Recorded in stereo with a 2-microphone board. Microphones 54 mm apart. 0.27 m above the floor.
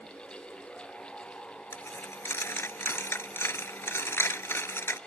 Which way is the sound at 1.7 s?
60° left (ahead or behind).